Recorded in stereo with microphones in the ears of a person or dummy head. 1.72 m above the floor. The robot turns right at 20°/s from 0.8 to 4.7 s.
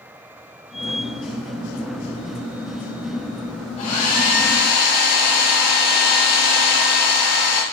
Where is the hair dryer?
40° left (ahead or behind), 0.8 m; by 7.6 s 55° left (ahead or behind), 0.8 m.